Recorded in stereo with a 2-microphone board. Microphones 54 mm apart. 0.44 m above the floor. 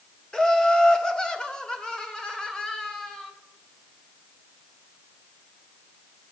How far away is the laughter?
About 1.4 m.